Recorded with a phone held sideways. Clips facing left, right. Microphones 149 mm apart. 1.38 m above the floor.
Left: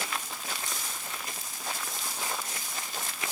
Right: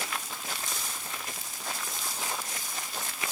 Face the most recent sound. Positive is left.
No sound to turn to.